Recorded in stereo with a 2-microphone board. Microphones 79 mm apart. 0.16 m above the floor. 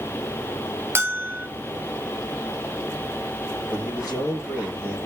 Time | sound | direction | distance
0.9 | a bell | 30° right (ahead or behind) | 1.2 m
3.7 | a man speaking | 15° right (ahead or behind) | 4.5 m